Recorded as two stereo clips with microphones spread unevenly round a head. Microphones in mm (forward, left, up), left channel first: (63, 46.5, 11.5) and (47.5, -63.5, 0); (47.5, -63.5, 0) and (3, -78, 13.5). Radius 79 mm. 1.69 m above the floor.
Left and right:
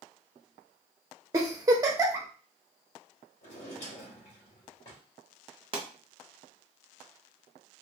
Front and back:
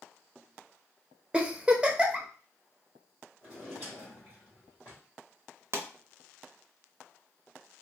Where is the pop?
155° right, 0.5 m.